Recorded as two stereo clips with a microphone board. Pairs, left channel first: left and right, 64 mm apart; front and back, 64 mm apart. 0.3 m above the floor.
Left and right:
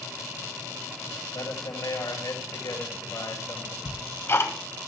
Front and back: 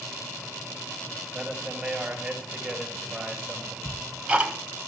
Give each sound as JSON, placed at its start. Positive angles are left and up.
{"t": 1.3, "sound": "a man speaking", "azimuth_deg": 115, "distance_m": 6.0}
{"t": 3.9, "sound": "ticking", "azimuth_deg": 115, "distance_m": 1.9}